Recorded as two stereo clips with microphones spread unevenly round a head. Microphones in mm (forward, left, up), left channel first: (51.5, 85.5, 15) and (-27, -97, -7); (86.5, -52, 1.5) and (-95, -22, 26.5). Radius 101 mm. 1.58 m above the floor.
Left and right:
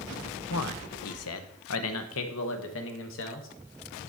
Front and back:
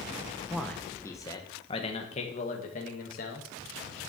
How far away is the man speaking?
About 1.0 m.